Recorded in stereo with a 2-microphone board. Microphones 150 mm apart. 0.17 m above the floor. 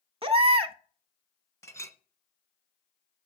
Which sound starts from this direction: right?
A baby crying, at 0.2 s.